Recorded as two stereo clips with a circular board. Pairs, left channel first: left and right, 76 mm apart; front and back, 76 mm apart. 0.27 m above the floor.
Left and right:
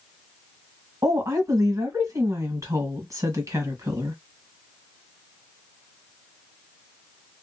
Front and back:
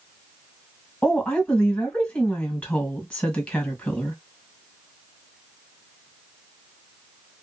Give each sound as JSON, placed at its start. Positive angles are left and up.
{"t": 1.0, "sound": "a woman speaking", "azimuth_deg": -60, "distance_m": 1.6}